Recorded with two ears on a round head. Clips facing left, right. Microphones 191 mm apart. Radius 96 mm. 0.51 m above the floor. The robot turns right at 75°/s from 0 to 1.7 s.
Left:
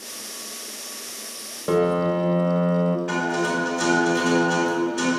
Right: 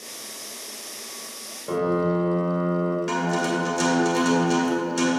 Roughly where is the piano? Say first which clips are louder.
Left 3 dB; left.